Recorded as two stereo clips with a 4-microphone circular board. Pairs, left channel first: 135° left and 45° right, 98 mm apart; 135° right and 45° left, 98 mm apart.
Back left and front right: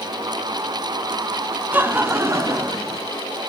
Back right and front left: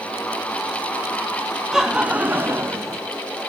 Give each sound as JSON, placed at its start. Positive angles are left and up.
{"t": 1.7, "sound": "laughter", "azimuth_deg": -30, "distance_m": 1.1}